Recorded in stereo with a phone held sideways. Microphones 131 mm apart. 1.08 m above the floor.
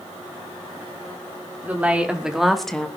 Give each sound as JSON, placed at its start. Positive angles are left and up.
{"t": 1.6, "sound": "a woman speaking", "side_deg": -15, "distance_m": 3.5}